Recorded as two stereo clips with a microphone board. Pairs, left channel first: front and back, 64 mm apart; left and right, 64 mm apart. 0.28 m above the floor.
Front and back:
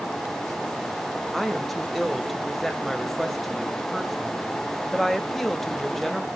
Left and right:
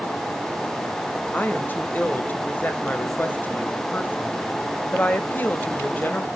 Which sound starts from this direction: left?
A woman speaking, at 1.3 s.